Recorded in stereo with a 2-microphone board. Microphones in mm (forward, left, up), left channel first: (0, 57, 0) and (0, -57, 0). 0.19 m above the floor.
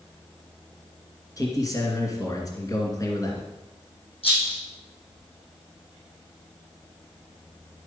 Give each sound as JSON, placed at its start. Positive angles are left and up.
{"t": 1.4, "sound": "a man speaking", "side_deg": 30, "distance_m": 2.5}
{"t": 4.2, "sound": "a rattle", "side_deg": 55, "distance_m": 6.0}